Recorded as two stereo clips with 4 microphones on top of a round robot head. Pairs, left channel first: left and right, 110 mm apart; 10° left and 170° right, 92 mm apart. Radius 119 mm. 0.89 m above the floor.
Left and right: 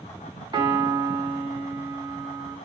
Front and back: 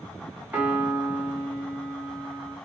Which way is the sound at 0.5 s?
110° right.